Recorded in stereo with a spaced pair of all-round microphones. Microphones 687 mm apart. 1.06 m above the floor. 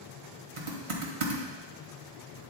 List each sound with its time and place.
0.6 s typing on a keyboard: 45° right (ahead or behind), 1.2 m